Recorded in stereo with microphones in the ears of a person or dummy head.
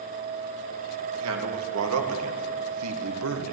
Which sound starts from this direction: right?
A man speaking, at 1.2 s.